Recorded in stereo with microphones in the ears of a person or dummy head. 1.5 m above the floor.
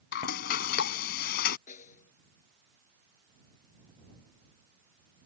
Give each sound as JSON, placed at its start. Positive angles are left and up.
{"t": 0.1, "sound": "frying", "side_deg": 65}
{"t": 1.7, "sound": "a snare drum", "side_deg": 50}